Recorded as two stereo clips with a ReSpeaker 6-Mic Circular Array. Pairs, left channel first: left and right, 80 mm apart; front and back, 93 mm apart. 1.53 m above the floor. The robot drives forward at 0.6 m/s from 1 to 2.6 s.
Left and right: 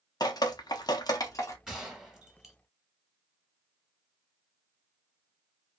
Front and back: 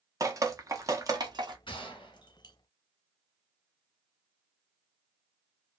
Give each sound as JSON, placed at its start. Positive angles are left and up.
{"t": 0.2, "sound": "dripping", "azimuth_deg": 125, "distance_m": 0.7}
{"t": 1.7, "sound": "a gunshot", "azimuth_deg": -5, "distance_m": 1.2}